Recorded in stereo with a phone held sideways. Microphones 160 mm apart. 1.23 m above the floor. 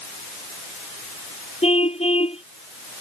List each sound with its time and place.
1.6 s a car horn: 40° left (ahead or behind)